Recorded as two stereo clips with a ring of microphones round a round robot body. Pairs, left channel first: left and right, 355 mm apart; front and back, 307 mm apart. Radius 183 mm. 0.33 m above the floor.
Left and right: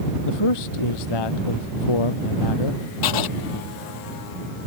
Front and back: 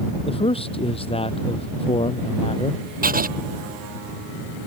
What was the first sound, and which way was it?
A man speaking, 70° left.